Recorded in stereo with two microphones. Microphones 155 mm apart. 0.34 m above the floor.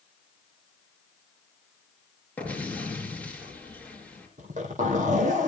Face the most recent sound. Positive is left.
turn(degrees=-55)  # may be behind; listen again after turning